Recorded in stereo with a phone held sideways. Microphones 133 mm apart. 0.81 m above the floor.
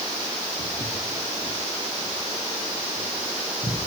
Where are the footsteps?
80° left, 9.5 m.